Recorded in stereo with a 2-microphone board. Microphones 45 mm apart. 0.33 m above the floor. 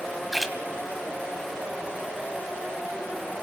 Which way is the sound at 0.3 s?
Centre (ahead or behind).